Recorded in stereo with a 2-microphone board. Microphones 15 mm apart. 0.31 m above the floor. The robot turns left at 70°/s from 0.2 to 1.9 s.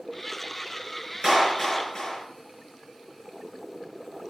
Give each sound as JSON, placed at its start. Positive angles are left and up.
{"t": 1.2, "sound": "a clap", "azimuth_deg": -155, "distance_m": 3.5}